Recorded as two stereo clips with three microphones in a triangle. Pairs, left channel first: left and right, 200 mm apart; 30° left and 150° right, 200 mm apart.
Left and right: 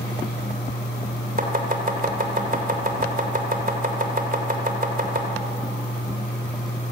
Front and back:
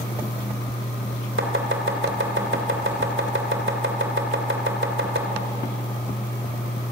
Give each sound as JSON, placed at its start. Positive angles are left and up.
{"t": 1.4, "sound": "chopping", "azimuth_deg": -135, "distance_m": 3.0}